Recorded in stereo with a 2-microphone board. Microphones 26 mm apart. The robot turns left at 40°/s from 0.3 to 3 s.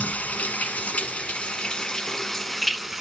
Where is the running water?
95° left, 0.8 m; by 3.0 s 10° right, 0.8 m.